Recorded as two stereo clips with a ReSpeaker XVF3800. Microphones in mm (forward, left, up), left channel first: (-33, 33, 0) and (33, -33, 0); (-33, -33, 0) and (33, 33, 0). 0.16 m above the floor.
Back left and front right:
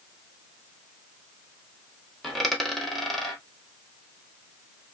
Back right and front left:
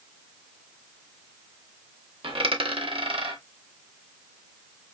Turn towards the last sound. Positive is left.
turn(degrees=45)